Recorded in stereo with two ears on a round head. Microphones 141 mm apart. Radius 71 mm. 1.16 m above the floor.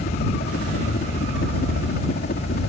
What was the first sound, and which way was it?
A helicopter, 60° left (ahead or behind).